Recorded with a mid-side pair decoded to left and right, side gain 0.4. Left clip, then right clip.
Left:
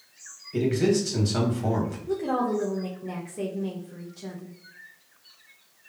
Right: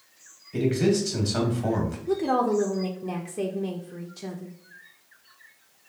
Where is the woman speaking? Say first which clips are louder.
Right 4 dB; 35° right, 0.5 m.